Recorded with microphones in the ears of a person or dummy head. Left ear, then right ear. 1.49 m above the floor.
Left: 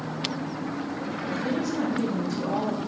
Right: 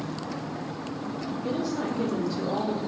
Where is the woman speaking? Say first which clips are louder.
Even; 65° left (ahead or behind), 3 m.